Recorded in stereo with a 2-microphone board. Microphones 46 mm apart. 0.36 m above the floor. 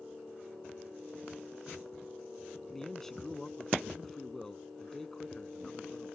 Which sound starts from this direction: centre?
A man speaking, at 2.7 s.